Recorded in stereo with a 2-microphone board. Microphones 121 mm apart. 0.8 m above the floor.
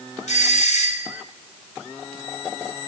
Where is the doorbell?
75° left (ahead or behind), 3 m.